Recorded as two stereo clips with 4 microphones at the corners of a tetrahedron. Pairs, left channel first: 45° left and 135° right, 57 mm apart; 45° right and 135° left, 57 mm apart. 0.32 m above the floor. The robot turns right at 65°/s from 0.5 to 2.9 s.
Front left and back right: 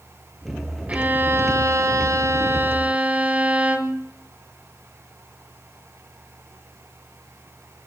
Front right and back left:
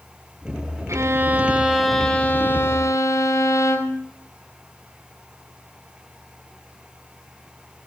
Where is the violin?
160° left, 1.4 m; by 4.0 s 70° right, 1.4 m.